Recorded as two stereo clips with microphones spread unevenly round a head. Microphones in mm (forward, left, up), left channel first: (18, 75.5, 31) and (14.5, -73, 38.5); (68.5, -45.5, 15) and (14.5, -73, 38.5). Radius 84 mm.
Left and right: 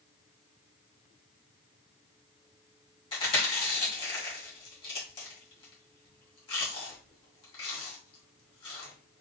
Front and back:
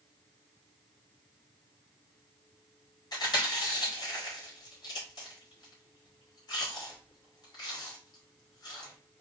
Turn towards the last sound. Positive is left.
turn(degrees=35)